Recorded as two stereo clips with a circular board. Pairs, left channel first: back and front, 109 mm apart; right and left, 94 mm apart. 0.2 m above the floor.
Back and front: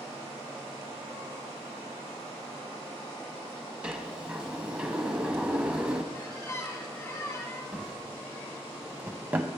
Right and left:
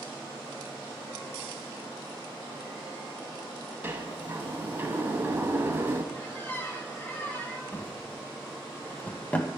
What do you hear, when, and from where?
3.8 s a sliding door: 65° left, 0.8 m
6.1 s a squeak: 140° right, 1.1 m
7.7 s a drawer: 50° right, 0.5 m